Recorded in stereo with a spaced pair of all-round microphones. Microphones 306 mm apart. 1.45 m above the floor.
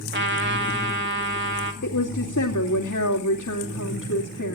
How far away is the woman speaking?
About 3 m.